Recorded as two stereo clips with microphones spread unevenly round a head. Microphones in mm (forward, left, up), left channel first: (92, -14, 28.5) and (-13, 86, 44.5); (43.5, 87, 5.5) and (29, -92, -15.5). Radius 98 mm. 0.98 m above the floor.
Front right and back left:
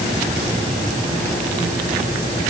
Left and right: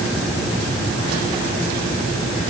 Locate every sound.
Only background noise.